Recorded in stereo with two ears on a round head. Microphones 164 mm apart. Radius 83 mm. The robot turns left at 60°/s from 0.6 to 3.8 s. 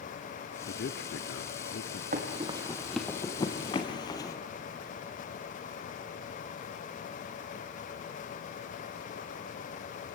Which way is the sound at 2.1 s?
45° right (ahead or behind).